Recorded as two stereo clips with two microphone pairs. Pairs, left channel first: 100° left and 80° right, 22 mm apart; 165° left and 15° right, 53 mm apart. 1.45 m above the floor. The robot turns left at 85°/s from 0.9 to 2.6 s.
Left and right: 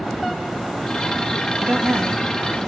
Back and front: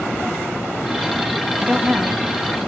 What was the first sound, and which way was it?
A woman speaking, 70° right.